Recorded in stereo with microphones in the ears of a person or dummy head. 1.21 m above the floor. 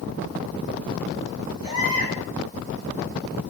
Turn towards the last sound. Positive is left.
turn(degrees=-30)  # may be behind; listen again after turning